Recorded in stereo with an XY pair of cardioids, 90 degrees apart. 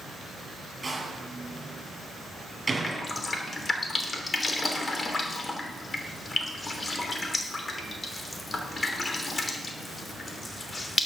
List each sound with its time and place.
0.8 s a door slam: 30° right, 7.5 m
2.8 s dripping: 35° left, 3 m